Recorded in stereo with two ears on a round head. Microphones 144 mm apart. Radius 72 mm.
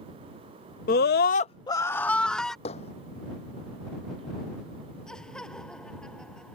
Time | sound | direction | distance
0.9 | a scream | 60° left (ahead or behind) | ?
2.6 | hammering | 40° left (ahead or behind) | ?
5.1 | laughter | 5° left (ahead or behind) | ?